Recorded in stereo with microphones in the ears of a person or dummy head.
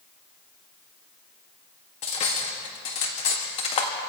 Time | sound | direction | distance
2.0 | cutlery clinking | 30° left (ahead or behind) | 1.6 m